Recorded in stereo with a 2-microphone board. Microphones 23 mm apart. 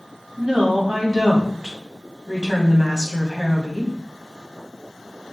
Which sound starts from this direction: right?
A woman speaking, at 0.4 s.